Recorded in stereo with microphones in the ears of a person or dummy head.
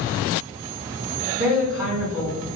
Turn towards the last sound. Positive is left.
turn(degrees=0)  # may be behind; listen again after turning